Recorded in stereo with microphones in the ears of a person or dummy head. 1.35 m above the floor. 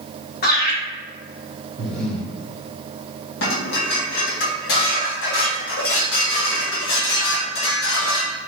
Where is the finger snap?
No finger snap in this recording.